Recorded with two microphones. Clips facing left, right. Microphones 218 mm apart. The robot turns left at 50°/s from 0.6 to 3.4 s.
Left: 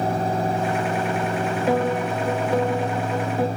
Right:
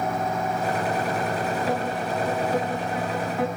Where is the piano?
125° left, 1.1 m; by 3.5 s 40° left, 1.1 m.